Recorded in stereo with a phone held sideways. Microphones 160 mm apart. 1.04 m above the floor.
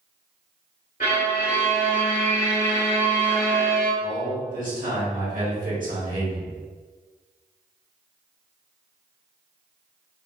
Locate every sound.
1.0 s a violin: 60° left (ahead or behind), 1.7 m
4.0 s a man speaking: 55° right (ahead or behind), 1.5 m